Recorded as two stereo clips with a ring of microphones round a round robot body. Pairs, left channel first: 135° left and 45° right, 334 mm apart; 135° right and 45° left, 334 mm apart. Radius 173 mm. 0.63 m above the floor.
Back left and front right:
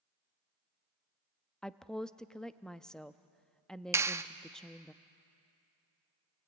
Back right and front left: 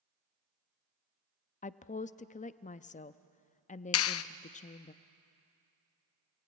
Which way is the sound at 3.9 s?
125° right.